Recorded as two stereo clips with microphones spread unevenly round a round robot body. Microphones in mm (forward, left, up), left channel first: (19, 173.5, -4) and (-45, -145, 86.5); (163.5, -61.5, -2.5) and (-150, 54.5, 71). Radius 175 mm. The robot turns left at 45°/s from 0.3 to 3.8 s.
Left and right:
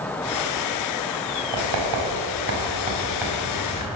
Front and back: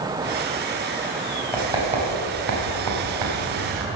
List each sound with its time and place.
1.5 s writing: 110° right, 4 m; by 3.9 s 150° left, 4 m